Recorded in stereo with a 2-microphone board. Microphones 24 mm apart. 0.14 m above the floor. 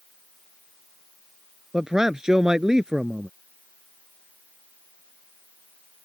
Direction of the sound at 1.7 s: 25° right (ahead or behind).